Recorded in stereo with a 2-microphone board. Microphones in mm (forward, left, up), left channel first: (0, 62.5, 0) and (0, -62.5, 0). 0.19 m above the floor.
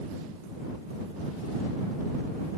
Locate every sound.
Only background noise.